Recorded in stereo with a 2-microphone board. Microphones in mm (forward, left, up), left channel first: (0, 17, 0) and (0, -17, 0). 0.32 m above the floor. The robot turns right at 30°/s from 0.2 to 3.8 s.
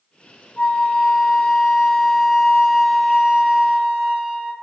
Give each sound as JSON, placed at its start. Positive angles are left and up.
{"t": 0.6, "sound": "a flute", "azimuth_deg": 115, "distance_m": 1.9}